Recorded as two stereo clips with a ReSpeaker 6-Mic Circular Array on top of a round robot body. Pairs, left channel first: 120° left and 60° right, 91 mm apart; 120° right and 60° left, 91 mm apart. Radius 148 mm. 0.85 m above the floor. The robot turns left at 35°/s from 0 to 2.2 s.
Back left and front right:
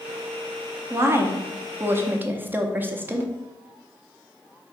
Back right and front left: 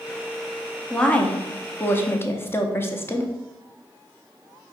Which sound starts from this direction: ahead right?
A woman speaking, at 0.9 s.